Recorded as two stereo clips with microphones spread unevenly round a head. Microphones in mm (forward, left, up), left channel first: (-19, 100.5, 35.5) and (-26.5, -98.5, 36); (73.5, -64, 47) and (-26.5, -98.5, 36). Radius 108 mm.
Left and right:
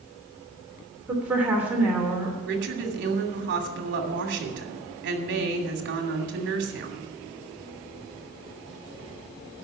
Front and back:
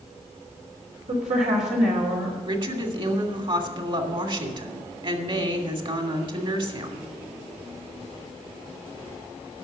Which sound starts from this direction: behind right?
A woman speaking, at 2.5 s.